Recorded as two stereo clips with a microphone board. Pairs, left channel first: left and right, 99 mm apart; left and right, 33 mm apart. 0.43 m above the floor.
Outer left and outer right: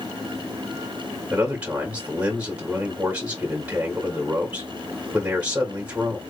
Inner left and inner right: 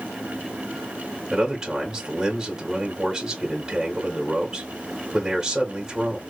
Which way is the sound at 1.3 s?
15° right (ahead or behind).